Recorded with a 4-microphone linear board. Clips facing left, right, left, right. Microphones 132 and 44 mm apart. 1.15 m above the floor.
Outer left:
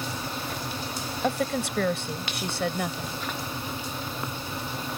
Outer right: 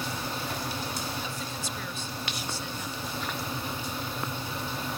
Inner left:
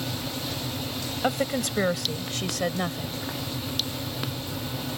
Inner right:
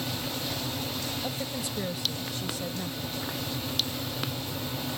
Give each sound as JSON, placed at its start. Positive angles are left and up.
{"t": 1.2, "sound": "a woman speaking", "side_deg": 75}